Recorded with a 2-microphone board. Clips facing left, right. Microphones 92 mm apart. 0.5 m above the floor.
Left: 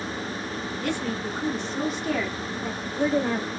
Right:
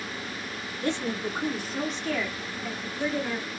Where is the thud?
I don't hear a thud.